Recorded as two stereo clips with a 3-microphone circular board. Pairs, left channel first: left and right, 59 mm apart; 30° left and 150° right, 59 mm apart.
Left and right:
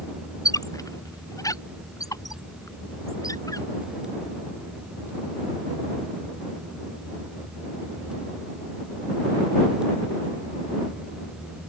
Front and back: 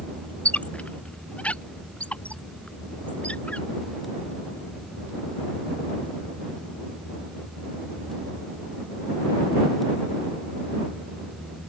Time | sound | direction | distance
0.5 | a squeak | 95° left | ?